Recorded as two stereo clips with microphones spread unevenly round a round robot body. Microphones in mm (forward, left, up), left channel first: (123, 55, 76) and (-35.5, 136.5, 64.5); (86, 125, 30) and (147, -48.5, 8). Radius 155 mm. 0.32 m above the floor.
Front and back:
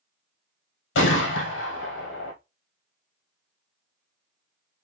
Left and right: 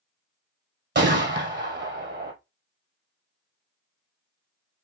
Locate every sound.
0.9 s a gunshot: 40° right, 1.6 m